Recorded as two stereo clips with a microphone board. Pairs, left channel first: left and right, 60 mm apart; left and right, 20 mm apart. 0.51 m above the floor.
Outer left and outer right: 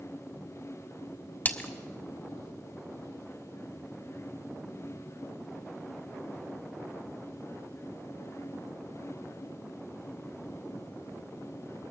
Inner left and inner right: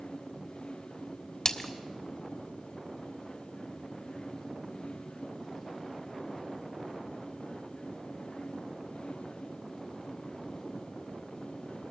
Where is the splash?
30° left (ahead or behind), 1.5 m.